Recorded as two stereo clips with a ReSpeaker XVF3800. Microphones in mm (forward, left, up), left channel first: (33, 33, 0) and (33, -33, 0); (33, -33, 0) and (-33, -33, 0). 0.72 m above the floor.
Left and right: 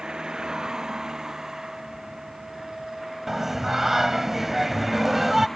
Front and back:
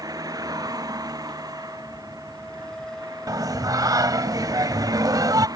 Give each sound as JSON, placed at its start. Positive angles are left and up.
{"t": 0.0, "sound": "a vehicle", "azimuth_deg": -165}
{"t": 3.3, "sound": "singing", "azimuth_deg": -175}